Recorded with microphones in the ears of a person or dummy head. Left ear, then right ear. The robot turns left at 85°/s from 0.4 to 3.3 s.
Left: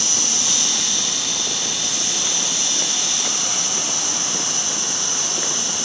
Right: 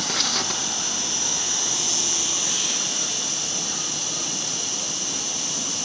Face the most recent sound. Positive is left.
turn(degrees=-175)